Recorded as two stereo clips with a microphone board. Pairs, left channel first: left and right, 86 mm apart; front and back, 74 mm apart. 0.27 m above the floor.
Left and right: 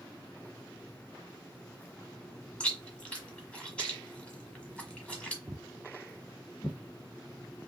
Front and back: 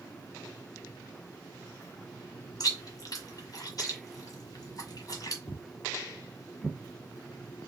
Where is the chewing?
15° left, 1.3 m.